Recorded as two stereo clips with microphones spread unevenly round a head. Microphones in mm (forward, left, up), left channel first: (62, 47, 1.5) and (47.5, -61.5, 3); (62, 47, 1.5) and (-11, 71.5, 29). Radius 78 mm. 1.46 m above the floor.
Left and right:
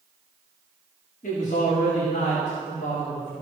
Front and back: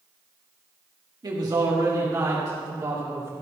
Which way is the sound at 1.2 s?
130° left.